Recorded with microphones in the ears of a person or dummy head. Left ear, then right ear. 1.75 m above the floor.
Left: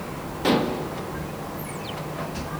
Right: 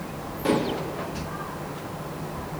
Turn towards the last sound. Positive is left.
turn(degrees=25)  # may be behind; listen again after turning